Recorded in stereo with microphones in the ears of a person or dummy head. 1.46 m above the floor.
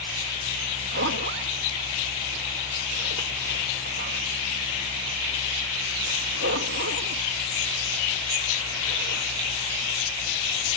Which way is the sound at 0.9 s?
65° right (ahead or behind).